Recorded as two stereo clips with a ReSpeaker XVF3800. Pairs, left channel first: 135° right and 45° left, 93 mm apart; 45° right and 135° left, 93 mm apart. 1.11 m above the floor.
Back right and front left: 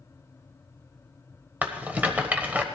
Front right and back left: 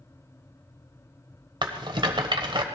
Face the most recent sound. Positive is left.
turn(degrees=115)